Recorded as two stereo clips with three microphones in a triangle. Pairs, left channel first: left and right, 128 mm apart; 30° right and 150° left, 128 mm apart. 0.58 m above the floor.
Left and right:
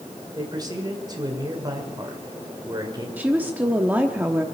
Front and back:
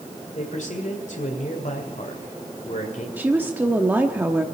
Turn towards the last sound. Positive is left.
turn(degrees=-150)